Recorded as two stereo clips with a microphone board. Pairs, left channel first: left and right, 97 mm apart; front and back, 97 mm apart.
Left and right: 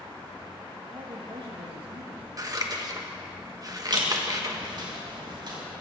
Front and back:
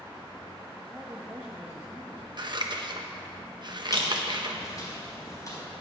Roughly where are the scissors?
Behind right.